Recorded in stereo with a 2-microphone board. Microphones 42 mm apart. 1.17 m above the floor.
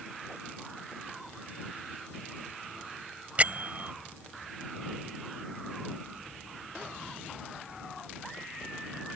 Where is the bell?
40° right (ahead or behind).